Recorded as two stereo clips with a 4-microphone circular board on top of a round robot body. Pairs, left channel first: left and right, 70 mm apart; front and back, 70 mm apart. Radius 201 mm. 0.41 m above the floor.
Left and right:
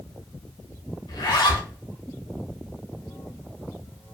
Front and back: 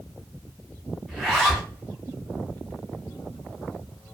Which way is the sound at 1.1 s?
95° left.